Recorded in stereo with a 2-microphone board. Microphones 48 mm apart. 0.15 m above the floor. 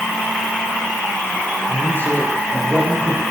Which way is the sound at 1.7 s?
40° right (ahead or behind).